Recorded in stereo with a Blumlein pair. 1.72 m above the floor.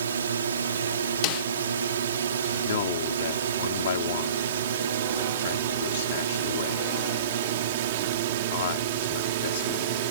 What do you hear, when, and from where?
0.0 s a drone: 70° right; by 10.1 s 50° right
1.2 s a snare drum: 40° left
2.6 s a man speaking: 55° left